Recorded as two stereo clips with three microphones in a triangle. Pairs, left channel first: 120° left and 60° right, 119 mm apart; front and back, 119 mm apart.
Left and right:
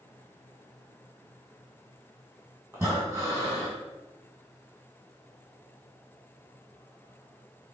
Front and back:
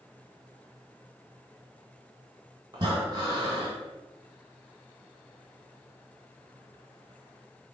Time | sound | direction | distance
2.7 | breathing | 130° right | 1.4 m